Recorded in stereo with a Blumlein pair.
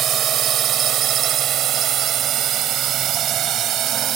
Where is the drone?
30° right.